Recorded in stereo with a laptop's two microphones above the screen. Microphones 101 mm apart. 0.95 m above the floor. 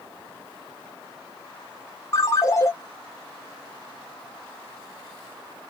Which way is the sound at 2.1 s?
30° left (ahead or behind).